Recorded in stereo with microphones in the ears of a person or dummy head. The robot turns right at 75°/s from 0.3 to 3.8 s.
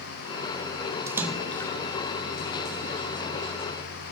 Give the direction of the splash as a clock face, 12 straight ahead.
1 o'clock.